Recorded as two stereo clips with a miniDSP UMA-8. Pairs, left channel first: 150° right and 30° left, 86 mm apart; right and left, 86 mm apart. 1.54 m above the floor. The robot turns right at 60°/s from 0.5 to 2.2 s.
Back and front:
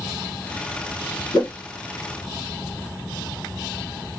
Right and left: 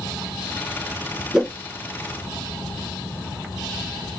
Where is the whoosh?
170° left, 1.1 m; by 1.5 s 175° right, 1.1 m.